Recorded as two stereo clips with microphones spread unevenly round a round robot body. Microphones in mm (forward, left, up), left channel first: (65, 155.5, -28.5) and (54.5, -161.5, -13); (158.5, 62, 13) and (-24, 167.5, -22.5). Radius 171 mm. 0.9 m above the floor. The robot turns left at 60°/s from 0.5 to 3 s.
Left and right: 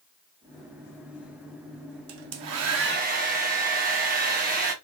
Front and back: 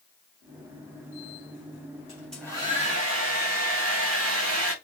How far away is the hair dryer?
About 0.8 m.